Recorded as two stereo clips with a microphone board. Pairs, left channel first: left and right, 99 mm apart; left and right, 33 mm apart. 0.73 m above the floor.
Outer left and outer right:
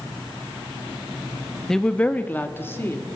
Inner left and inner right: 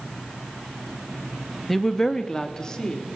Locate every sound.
1.7 s a woman speaking: 5° left (ahead or behind), 1.0 m; by 3.1 s 25° left (ahead or behind), 2.5 m